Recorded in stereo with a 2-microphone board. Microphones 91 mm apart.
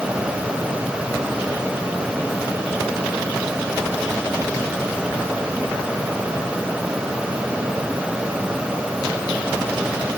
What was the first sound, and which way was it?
Only background noise.